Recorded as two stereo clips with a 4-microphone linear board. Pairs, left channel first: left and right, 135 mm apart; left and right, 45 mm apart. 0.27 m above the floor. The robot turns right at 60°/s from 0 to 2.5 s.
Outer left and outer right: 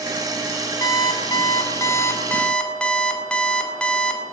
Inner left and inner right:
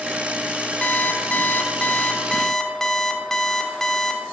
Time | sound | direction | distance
0.8 | an alarm clock | 65° left | 0.5 m